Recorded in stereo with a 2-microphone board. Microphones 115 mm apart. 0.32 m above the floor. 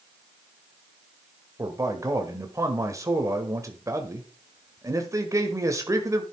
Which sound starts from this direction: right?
A man speaking, at 1.6 s.